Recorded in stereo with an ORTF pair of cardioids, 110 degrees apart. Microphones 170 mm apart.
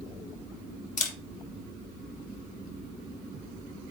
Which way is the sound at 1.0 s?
50° left.